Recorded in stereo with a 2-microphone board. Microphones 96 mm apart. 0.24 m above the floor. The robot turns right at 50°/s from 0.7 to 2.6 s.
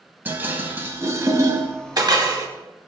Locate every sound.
0.2 s dishes clattering: 20° right (ahead or behind), 0.8 m; by 2.5 s 35° right (ahead or behind), 0.8 m